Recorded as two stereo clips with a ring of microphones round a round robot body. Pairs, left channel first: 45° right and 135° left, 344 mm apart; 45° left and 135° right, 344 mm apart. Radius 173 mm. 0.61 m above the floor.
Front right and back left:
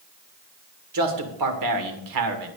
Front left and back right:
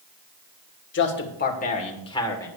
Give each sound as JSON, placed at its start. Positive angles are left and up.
{"t": 0.9, "sound": "a man speaking", "azimuth_deg": 100, "distance_m": 2.5}